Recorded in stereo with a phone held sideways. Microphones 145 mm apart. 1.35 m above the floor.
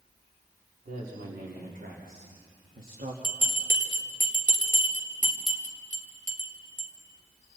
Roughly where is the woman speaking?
Right.